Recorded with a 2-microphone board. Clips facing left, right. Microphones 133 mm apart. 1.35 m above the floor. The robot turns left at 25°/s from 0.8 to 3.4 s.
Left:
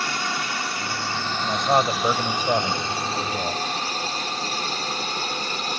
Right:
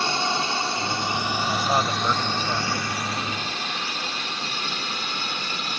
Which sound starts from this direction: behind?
A man speaking, at 1.4 s.